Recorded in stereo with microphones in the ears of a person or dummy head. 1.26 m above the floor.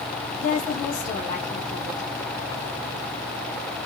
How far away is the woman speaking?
About 1.0 m.